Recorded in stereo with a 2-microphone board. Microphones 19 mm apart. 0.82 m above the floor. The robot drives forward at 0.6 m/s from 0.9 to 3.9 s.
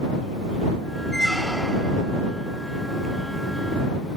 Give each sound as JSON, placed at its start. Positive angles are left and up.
{"t": 1.1, "sound": "a squeak", "side_deg": 20, "distance_m": 1.8}